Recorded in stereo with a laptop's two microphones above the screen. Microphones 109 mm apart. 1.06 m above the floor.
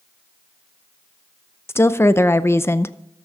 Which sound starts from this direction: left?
A woman speaking, at 1.7 s.